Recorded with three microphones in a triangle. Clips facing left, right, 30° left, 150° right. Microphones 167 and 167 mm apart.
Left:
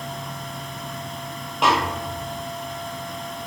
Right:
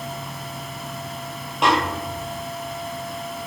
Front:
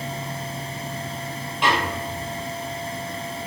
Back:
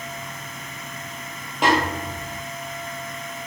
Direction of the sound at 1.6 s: Straight behind.